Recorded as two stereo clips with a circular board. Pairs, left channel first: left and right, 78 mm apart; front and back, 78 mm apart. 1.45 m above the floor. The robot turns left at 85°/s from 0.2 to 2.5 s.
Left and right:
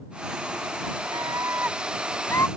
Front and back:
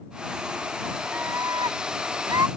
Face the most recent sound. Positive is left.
turn(degrees=135)